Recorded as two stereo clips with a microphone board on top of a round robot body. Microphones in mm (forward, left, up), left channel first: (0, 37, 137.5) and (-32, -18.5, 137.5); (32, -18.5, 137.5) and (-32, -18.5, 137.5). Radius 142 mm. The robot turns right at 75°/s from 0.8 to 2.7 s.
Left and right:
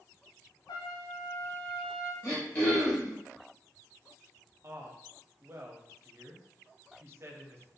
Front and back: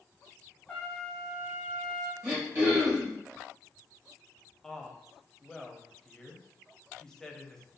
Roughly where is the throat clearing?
Left.